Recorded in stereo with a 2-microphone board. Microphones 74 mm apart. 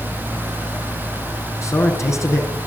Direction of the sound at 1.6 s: 40° left (ahead or behind).